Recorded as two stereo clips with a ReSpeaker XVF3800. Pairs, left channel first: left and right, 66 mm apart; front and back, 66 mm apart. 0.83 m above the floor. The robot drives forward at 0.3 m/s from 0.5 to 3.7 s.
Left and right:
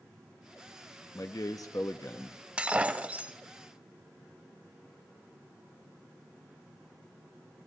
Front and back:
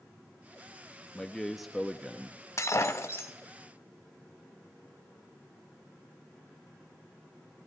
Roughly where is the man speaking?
Left.